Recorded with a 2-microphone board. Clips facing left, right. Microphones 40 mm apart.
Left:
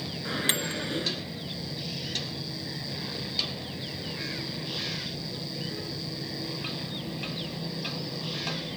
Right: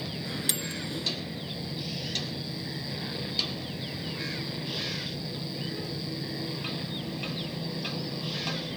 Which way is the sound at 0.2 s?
40° left (ahead or behind).